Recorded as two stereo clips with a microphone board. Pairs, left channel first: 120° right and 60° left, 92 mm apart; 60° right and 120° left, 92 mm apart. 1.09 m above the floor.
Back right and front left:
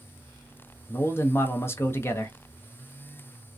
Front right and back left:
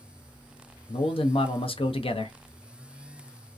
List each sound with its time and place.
0.9 s a man speaking: 55° right, 0.5 m